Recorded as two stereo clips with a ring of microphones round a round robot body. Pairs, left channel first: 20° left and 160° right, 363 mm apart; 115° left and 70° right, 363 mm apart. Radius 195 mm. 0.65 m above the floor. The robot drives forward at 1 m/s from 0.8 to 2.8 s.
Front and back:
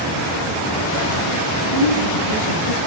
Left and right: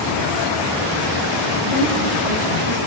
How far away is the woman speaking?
About 5.5 m.